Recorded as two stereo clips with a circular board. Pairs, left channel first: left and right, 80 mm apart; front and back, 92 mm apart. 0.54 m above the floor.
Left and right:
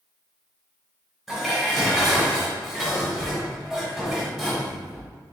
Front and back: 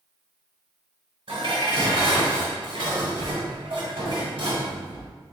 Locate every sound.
1.3 s dishes clattering: straight behind, 1.4 m